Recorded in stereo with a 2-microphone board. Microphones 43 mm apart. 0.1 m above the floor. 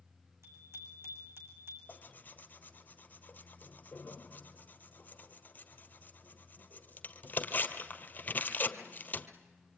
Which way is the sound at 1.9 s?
40° left (ahead or behind).